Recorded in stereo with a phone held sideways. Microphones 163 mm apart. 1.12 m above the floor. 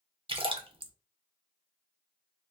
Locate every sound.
0.3 s a splash: 35° right (ahead or behind), 0.5 m